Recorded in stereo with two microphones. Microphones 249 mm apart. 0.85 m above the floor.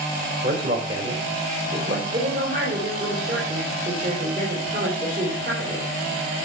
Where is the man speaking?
45° right (ahead or behind), 4.5 m.